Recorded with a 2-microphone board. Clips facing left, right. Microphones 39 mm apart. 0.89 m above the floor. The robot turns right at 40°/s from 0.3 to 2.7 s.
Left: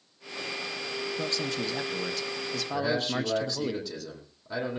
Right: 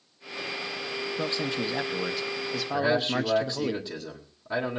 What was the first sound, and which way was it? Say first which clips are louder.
A man speaking: right 3 dB; 25° right (ahead or behind).